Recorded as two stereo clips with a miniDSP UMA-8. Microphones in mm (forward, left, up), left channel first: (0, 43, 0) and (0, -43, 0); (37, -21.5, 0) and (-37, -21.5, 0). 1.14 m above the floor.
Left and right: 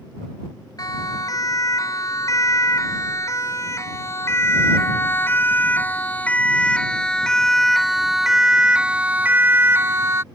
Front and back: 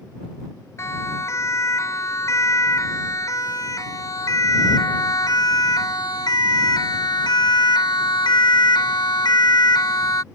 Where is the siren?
45° left; by 10.2 s 35° right.